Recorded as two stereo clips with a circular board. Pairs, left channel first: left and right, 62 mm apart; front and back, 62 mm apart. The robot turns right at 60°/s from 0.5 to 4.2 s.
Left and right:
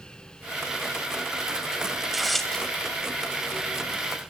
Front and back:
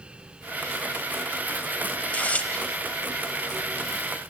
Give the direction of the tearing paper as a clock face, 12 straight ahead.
1 o'clock.